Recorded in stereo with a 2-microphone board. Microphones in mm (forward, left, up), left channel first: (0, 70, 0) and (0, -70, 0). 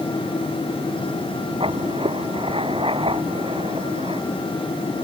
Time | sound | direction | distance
1.6 | writing | 45° right (ahead or behind) | ?